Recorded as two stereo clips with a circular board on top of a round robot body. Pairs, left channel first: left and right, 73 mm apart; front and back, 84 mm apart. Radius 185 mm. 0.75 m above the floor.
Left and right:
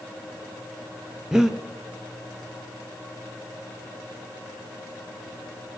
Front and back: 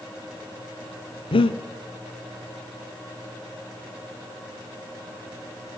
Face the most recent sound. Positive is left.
turn(degrees=-5)